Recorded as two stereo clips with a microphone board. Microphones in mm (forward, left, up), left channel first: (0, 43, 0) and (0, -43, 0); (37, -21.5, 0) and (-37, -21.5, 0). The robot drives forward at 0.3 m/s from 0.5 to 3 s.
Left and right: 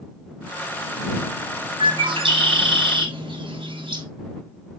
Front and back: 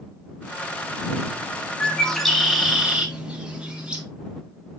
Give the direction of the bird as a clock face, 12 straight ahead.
3 o'clock.